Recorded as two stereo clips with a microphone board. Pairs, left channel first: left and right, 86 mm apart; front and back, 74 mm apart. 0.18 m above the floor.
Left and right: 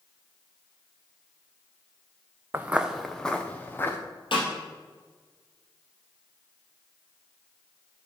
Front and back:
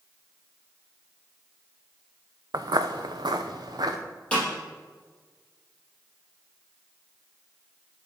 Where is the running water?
No running water in this recording.